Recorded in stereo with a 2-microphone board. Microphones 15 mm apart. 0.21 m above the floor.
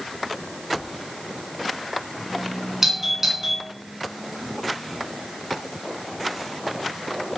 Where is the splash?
No splash in this recording.